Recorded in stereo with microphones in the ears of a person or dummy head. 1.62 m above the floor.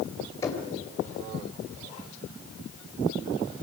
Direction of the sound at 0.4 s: 20° left (ahead or behind).